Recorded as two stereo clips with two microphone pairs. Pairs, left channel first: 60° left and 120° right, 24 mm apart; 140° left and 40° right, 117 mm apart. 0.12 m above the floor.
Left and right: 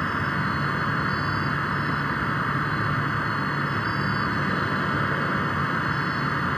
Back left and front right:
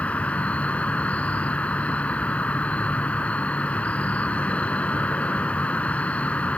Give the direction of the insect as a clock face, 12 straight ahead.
9 o'clock.